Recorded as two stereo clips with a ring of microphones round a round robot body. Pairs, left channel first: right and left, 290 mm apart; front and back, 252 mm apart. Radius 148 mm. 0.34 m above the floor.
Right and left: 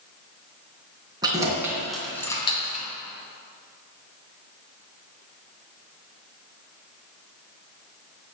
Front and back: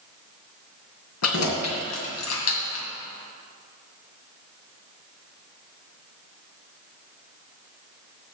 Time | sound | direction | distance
1.2 | keys jangling | 15° left | 3 m